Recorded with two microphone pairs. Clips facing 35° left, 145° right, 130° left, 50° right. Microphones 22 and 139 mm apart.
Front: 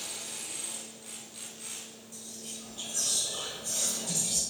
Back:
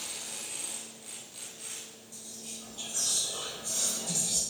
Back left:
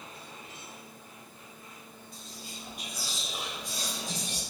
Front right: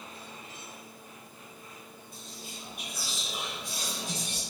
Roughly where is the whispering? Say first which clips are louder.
Front 1 dB, even; ahead right.